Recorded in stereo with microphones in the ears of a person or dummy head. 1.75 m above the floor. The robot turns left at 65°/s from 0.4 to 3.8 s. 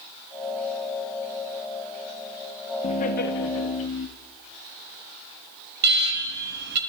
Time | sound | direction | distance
2.8 | laughter | 140° left | 2 m
5.8 | an alarm | 60° right (ahead or behind) | 3 m